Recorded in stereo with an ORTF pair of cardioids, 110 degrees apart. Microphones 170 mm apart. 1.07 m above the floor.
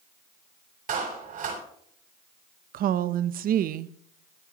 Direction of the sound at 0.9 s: 55° right.